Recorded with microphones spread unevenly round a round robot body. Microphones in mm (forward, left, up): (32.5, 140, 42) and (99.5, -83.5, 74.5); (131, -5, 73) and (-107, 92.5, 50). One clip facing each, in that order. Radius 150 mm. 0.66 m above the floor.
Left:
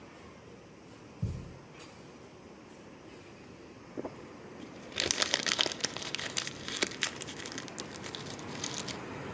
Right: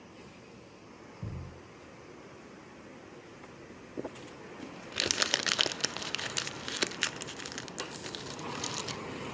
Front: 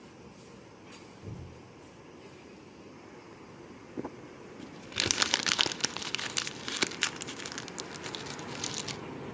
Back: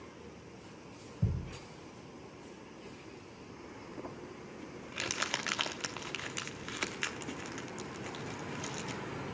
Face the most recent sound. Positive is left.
turn(degrees=15)